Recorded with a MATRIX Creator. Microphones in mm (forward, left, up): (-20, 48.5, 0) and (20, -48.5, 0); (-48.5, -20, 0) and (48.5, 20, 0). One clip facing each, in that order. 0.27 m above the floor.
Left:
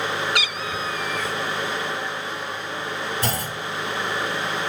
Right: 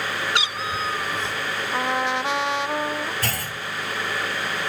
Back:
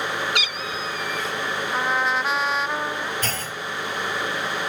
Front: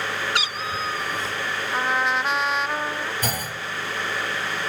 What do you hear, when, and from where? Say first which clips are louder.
0.3 s a cat meowing: right 1 dB, front 1 dB; 20° right
1.7 s a trumpet: right 5 dB, even; 70° right
3.2 s a clunk: left 3 dB, front 1 dB; 80° left